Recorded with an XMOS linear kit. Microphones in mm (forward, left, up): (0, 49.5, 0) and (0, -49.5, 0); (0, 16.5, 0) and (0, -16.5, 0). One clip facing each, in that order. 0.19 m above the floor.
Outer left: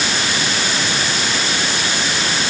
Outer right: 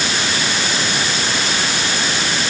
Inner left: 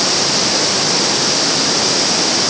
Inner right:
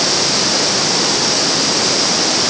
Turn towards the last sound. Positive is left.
No sound to turn to.